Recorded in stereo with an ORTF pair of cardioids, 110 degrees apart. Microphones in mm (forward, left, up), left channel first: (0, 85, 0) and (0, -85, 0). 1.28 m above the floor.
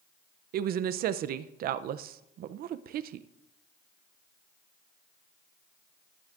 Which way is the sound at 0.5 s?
60° right.